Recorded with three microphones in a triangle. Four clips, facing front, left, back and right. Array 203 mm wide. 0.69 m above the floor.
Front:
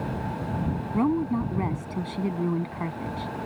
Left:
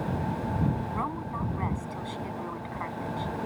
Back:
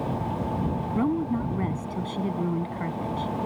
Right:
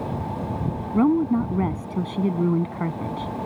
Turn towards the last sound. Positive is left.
turn(degrees=-80)